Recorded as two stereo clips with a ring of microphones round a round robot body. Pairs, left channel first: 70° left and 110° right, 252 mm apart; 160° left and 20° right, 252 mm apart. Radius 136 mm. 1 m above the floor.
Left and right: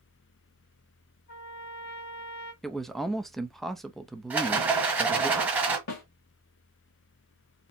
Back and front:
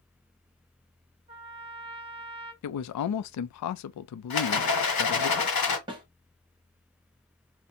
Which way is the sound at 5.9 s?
50° left.